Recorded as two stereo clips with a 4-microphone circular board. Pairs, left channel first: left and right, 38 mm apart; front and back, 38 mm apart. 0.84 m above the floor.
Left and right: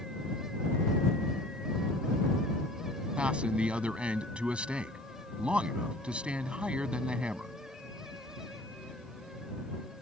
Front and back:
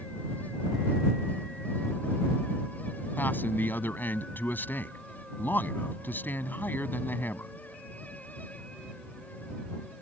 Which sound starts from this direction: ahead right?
A man speaking, at 3.2 s.